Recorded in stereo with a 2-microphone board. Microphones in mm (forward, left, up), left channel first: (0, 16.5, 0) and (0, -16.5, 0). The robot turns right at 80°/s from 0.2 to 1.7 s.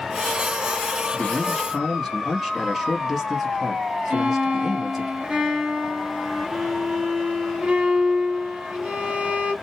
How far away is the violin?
About 2.5 m.